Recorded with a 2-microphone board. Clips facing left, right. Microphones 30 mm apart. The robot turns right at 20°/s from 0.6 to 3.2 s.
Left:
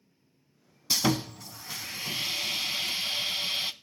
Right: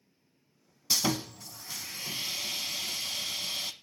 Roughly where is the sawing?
Centre.